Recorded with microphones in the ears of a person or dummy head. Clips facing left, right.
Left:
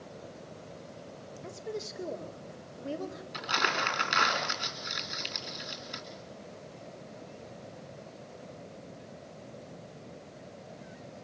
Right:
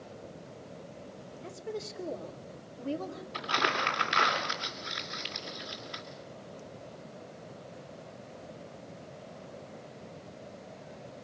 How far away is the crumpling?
About 2.5 m.